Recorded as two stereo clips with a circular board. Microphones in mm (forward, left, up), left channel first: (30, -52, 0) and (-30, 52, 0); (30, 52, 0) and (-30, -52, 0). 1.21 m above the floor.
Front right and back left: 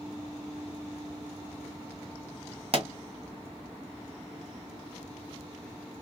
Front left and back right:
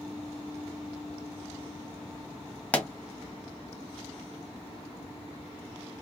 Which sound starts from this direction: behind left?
A pop, at 2.7 s.